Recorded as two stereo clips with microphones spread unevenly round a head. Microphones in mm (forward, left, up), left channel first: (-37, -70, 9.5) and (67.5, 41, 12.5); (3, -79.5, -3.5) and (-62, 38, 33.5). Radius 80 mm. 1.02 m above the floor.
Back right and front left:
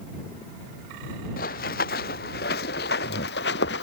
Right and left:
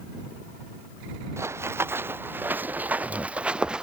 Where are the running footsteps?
175° right; by 3.8 s 160° right.